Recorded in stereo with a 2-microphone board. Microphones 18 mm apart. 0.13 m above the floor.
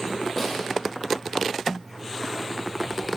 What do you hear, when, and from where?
0.4 s a snare drum: 15° left (ahead or behind), 1.5 m